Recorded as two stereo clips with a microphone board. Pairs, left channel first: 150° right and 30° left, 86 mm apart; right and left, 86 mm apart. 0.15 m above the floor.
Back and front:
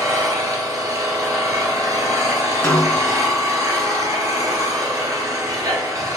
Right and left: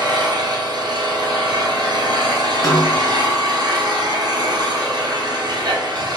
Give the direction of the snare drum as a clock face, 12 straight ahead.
3 o'clock.